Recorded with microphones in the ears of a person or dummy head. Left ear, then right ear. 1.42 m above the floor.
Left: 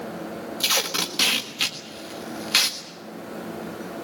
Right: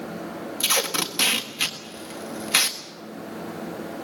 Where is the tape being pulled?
5° right (ahead or behind), 1.6 m.